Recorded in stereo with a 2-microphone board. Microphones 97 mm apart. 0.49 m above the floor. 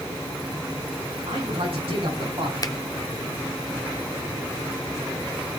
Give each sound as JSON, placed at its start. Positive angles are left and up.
{"t": 1.3, "sound": "a man speaking", "side_deg": -75, "distance_m": 6.0}
{"t": 2.6, "sound": "a finger snap", "side_deg": 35, "distance_m": 0.8}